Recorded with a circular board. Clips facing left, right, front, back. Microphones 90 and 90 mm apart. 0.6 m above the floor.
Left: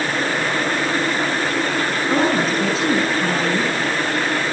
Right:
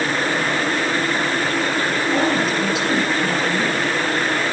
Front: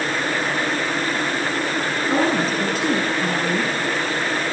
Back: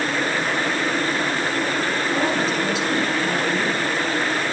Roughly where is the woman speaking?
Ahead left.